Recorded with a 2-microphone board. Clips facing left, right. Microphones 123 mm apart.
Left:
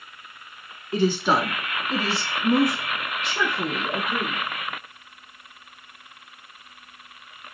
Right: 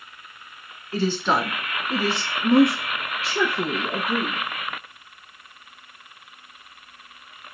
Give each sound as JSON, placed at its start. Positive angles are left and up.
{"t": 0.9, "sound": "a woman speaking", "side_deg": 20, "distance_m": 1.1}